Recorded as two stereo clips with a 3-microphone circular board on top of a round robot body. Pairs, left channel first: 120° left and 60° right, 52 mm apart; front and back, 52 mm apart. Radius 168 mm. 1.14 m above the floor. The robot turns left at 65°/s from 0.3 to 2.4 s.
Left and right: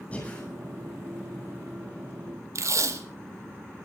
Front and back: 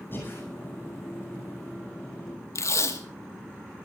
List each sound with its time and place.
0.1 s breathing: 55° left, 9.5 m; by 0.4 s 45° left, 9.5 m
2.5 s tape being pulled: 30° right, 2 m